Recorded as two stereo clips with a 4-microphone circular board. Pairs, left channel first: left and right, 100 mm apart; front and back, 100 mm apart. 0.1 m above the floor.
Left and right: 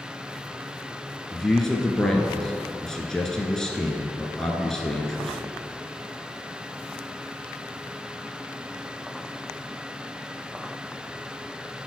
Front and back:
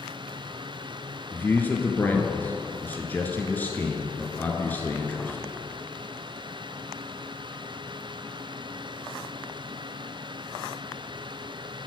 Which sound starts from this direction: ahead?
A man speaking, at 1.3 s.